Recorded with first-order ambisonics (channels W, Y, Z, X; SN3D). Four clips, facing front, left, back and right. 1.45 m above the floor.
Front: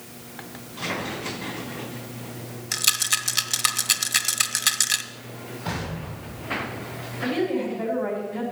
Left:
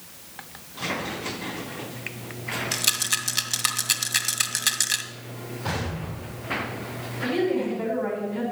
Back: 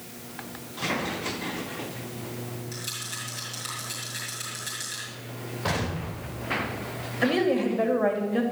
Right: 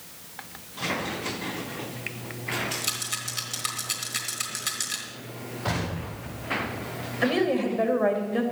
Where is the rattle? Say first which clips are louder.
Left 6 dB, front 15 dB; 30° left, 1.4 m.